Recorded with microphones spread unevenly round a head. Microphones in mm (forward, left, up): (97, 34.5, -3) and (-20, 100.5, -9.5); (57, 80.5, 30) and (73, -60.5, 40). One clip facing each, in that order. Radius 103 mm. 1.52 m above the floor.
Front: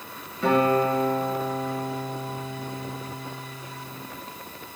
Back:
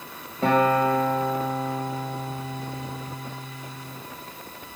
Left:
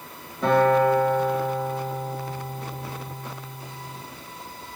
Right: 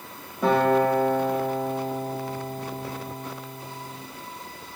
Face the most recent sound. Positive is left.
turn(degrees=-165)